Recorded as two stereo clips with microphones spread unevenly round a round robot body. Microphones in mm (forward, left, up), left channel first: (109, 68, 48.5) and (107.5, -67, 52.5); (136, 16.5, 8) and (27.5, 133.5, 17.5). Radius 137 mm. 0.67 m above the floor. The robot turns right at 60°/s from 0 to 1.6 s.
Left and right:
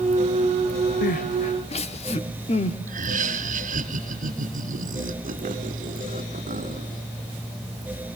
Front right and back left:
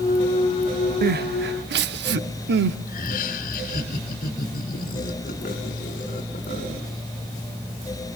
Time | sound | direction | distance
1.0 | crying | 110° left | 0.9 m
2.9 | laughter | 85° right | 2.5 m